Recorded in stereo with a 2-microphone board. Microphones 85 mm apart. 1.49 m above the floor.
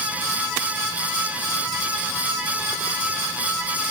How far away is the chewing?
I don't hear chewing.